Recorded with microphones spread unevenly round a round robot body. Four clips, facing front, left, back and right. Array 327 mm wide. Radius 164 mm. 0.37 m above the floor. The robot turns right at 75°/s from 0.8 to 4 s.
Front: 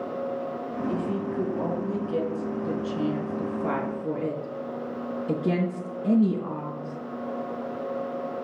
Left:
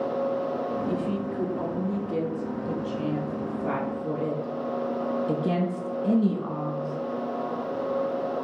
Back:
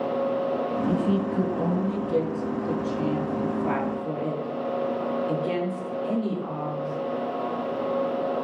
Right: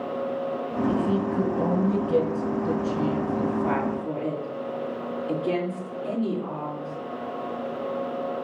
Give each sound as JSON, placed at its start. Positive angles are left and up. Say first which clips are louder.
{"t": 0.9, "sound": "a woman speaking", "louder": "right 4 dB, back 2 dB", "azimuth_deg": 175, "distance_m": 4.5}